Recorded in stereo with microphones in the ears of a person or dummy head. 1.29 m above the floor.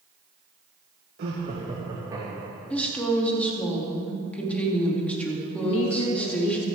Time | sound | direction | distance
1.2 | laughter | 50° right (ahead or behind) | 1.5 m
2.7 | a woman speaking | 10° left (ahead or behind) | 2.5 m
5.6 | a woman speaking | 85° left | 1.4 m